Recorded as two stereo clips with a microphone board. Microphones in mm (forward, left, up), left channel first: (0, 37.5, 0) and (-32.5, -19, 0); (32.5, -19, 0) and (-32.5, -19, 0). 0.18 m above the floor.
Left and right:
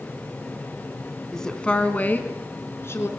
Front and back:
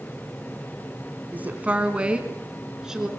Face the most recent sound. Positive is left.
turn(degrees=100)